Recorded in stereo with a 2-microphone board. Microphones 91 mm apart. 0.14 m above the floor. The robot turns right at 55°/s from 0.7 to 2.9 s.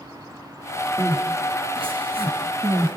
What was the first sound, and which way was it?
Crying, 30° right (ahead or behind).